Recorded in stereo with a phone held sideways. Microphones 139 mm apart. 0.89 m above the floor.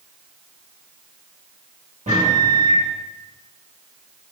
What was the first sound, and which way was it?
A microwave, 60° right (ahead or behind).